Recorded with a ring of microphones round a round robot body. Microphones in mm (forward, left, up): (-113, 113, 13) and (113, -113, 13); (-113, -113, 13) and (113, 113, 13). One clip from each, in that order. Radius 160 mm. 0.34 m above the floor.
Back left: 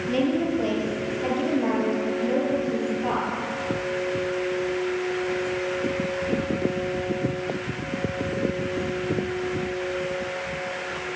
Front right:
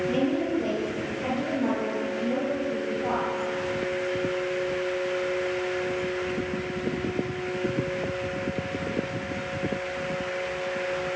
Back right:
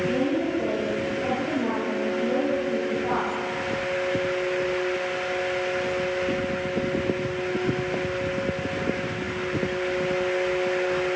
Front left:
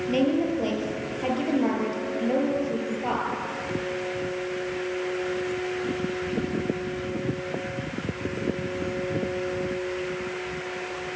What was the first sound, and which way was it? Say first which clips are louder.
A woman speaking: back left 2 dB, even; 50° left.